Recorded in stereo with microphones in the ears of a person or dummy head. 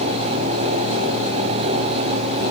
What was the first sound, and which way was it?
Only background noise.